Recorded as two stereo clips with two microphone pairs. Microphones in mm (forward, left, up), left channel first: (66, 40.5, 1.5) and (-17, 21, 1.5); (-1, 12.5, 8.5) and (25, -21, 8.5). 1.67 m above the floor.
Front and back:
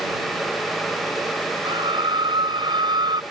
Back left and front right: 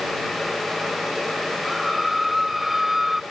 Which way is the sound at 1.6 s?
140° right.